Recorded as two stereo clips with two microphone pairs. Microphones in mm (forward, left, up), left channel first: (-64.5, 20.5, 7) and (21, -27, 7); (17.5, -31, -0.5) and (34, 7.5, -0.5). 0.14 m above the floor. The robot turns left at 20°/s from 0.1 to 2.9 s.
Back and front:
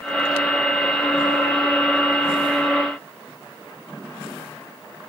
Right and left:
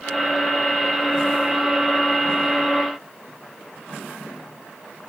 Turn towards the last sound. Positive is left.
No sound to turn to.